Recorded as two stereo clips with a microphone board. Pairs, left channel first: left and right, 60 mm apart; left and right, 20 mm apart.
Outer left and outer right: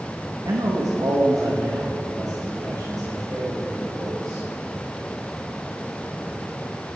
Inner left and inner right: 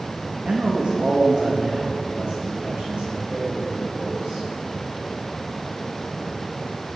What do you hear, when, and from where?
0.5 s a man speaking: 75° right (ahead or behind), 1.2 m